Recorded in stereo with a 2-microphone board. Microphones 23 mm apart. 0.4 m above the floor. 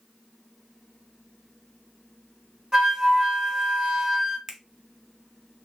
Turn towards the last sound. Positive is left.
turn(degrees=-25)  # may be behind; listen again after turning